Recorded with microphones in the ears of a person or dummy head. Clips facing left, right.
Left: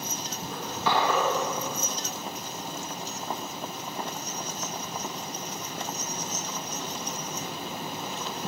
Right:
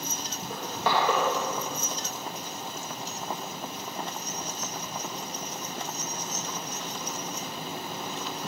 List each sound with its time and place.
0.5 s crushing: 50° right (ahead or behind), 2.5 m